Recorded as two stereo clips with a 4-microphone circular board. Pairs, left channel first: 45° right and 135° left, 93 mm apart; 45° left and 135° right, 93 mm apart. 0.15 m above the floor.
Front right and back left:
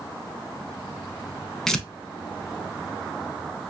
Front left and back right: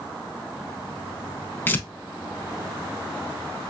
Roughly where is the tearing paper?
Ahead left.